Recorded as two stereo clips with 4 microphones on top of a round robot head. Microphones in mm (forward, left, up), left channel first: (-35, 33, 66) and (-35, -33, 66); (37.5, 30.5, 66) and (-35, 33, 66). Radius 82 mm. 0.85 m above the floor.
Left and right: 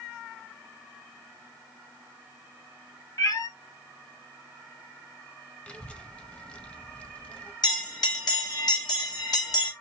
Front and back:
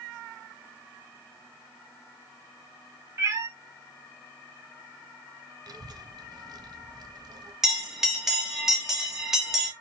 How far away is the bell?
About 1.8 m.